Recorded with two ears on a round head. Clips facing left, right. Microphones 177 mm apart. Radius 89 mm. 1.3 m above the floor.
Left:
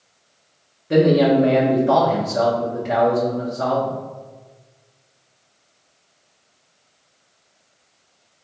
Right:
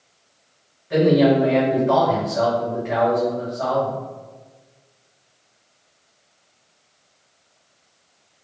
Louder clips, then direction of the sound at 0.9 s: Left 1 dB; 55° left (ahead or behind).